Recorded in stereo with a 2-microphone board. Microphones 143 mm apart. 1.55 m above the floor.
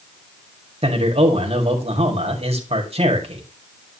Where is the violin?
No violin in this recording.